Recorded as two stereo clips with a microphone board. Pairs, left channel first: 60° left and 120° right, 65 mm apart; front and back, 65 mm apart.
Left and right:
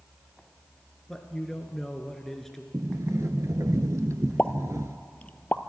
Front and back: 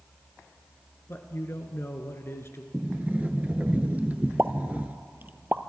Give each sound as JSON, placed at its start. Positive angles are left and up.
{"t": 1.1, "sound": "a man speaking", "azimuth_deg": -20, "distance_m": 1.4}
{"t": 2.7, "sound": "a sliding door", "azimuth_deg": -120, "distance_m": 0.7}
{"t": 4.4, "sound": "a pop", "azimuth_deg": 130, "distance_m": 0.6}